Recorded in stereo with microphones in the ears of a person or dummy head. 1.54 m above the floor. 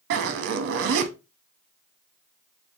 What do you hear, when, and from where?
0.1 s a zipper: 65° right (ahead or behind), 0.6 m